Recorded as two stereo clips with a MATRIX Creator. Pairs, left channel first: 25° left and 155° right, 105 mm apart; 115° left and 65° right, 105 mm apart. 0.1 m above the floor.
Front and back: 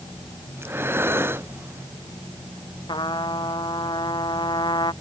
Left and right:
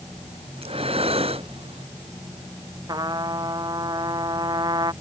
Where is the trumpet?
20° right.